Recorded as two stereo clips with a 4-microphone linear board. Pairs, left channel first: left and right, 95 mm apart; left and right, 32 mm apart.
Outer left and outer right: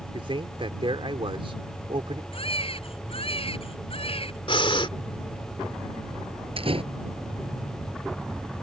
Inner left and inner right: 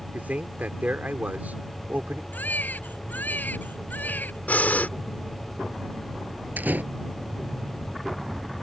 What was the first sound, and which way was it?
A man speaking, 65° right (ahead or behind).